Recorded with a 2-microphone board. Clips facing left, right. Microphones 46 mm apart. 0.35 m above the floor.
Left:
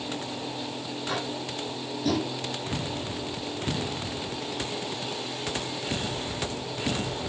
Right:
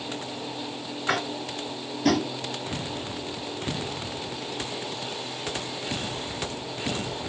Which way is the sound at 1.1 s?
65° right (ahead or behind).